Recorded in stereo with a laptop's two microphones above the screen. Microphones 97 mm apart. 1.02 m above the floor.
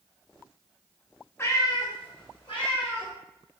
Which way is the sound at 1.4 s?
25° left (ahead or behind).